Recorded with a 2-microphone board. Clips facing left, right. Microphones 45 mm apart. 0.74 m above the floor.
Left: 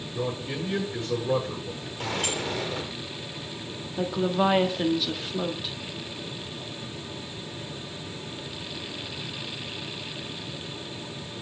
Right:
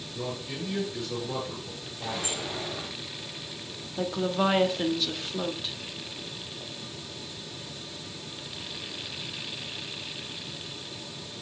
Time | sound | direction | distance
0.1 | a man speaking | 35° left (ahead or behind) | 8.5 m
2.0 | a sliding door | 70° left (ahead or behind) | 3.5 m
4.0 | a woman speaking | 5° left (ahead or behind) | 1.7 m